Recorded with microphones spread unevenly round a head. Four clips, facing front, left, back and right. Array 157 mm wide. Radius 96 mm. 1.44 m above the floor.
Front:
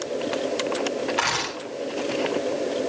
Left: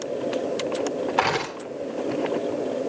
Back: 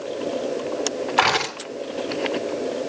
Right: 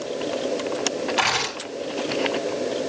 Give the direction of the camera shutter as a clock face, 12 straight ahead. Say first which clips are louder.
Left 3 dB, back 6 dB; 8 o'clock.